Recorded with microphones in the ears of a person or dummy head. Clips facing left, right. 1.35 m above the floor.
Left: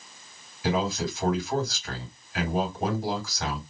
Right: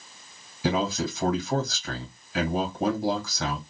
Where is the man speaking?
85° right, 2 m.